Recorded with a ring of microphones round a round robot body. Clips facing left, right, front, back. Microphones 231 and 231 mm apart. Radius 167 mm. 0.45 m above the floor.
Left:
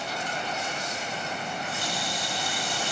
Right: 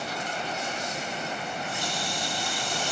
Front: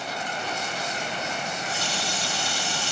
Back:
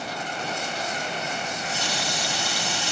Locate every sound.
1.5 s a running tap: 175° left, 2.5 m